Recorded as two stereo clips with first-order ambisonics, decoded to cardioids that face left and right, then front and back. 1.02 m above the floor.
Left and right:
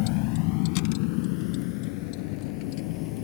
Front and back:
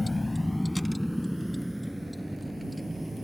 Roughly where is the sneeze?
No sneeze in this recording.